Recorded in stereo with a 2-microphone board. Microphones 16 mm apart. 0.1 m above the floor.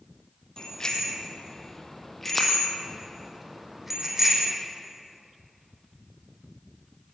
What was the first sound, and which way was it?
A bicycle bell, 45° left (ahead or behind).